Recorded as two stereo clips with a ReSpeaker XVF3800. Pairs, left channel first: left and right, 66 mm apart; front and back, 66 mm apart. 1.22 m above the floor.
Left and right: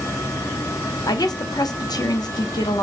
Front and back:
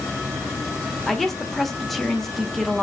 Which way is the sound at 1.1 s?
90° left.